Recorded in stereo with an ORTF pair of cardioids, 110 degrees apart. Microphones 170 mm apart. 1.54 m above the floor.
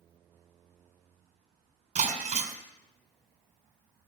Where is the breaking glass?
50° right, 3.5 m.